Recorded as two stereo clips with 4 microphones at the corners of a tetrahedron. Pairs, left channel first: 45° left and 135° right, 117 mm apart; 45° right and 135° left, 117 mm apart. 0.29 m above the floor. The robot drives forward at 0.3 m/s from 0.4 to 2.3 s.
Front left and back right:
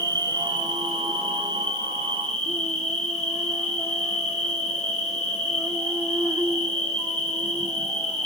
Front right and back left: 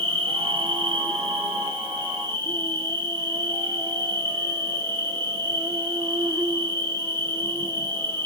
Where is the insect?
170° left, 0.7 m; by 8.3 s 175° left, 1.3 m.